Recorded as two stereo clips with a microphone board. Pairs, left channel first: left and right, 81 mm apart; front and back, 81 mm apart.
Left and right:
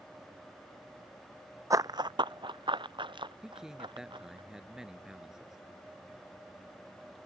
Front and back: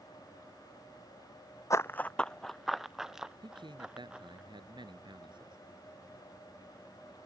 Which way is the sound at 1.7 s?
45° right.